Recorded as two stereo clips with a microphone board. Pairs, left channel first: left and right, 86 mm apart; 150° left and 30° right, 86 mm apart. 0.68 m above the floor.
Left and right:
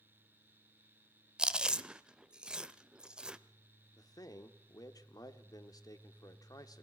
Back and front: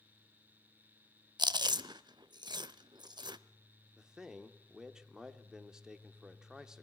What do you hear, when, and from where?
1.4 s chewing: 10° right, 0.6 m
4.0 s a man speaking: 55° left, 1.4 m